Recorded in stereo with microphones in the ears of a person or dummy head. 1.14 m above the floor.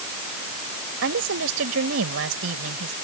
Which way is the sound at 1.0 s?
75° right (ahead or behind).